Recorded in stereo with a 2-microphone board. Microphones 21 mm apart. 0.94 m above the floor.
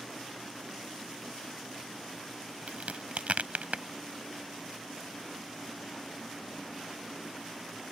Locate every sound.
2.7 s a crack: 75° right (ahead or behind)